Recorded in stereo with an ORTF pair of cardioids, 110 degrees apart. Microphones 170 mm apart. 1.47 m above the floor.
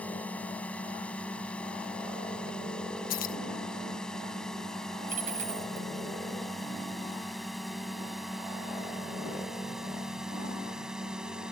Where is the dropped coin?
55° right.